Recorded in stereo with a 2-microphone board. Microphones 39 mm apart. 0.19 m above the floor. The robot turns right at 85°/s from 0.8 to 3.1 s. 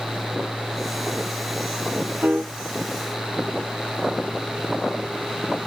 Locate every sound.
2.2 s a piano: 45° right (ahead or behind), 0.7 m; by 2.5 s 60° right (ahead or behind), 0.7 m